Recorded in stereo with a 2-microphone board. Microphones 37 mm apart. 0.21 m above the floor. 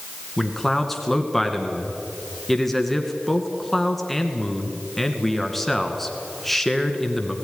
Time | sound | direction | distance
0.4 | a man speaking | 5° left (ahead or behind) | 2.0 m